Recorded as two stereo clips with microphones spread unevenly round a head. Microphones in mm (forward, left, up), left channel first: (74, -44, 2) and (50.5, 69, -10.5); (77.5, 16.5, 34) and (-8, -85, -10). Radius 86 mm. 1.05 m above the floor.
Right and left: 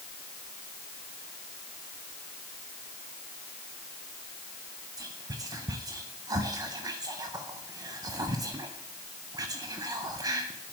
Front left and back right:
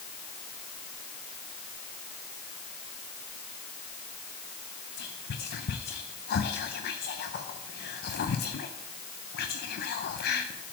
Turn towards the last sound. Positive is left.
turn(degrees=50)